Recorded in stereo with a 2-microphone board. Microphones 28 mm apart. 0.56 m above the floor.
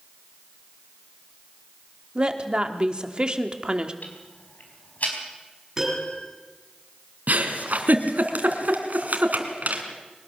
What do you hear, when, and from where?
2.1 s a woman speaking: 30° right (ahead or behind), 1.5 m
4.0 s ticking: 70° left (ahead or behind), 4.5 m
5.8 s a piano: 20° right (ahead or behind), 7.5 m
7.3 s a giggle: 75° right (ahead or behind), 2 m